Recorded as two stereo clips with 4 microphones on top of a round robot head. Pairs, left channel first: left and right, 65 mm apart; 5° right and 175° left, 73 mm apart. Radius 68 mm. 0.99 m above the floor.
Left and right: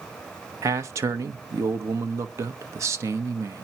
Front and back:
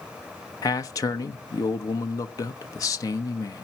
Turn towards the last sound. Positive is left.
turn(degrees=-50)